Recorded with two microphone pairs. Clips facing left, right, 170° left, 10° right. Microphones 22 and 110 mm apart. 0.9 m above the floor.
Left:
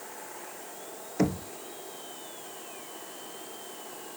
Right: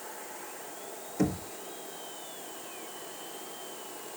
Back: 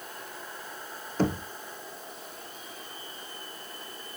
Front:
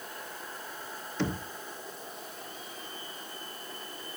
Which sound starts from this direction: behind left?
Knocking, at 1.2 s.